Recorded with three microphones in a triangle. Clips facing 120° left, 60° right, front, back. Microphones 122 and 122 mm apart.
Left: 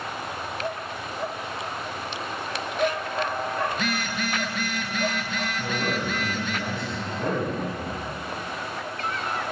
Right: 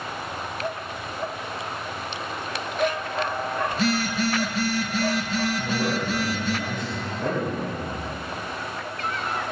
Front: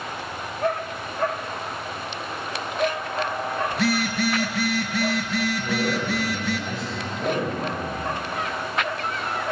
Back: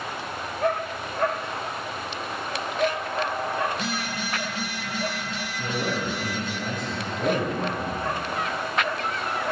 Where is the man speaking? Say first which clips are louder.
Right 2 dB, front 3 dB; 140° left, 5 m.